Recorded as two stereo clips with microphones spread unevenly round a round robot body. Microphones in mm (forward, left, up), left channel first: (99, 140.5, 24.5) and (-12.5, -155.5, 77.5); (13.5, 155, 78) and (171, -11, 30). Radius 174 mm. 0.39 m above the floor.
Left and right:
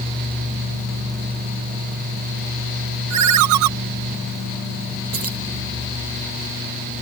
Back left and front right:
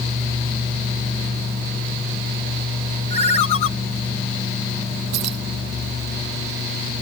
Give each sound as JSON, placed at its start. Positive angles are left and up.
{"t": 3.1, "sound": "a ringtone", "azimuth_deg": -155}
{"t": 5.1, "sound": "keys jangling", "azimuth_deg": -60}